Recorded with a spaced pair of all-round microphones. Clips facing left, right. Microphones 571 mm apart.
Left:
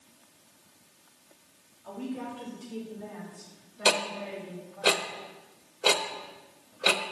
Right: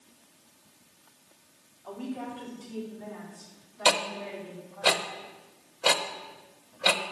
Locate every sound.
1.8 s a woman speaking: 45° left (ahead or behind), 3.5 m
3.9 s ticking: 25° right (ahead or behind), 0.6 m